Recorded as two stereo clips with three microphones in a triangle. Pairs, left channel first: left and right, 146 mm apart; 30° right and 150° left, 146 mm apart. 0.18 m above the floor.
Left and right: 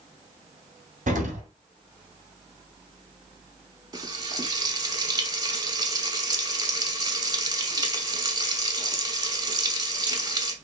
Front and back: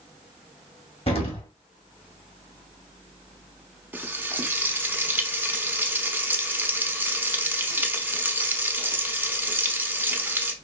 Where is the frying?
140° right, 0.6 m.